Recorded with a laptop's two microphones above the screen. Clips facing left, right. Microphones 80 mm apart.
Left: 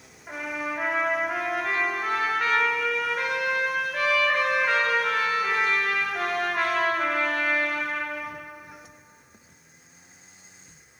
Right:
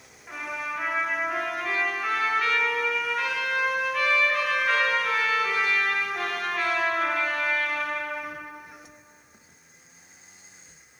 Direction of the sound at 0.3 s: 60° left (ahead or behind).